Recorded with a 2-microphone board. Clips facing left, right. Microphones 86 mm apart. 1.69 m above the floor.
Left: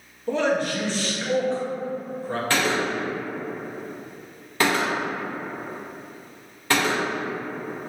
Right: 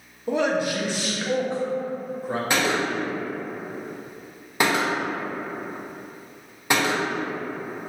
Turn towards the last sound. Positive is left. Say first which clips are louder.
# even
turn(degrees=-20)  # may be behind; listen again after turning